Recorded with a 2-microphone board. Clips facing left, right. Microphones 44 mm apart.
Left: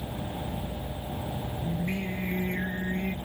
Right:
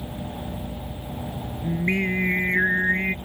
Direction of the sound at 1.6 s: 65° right (ahead or behind).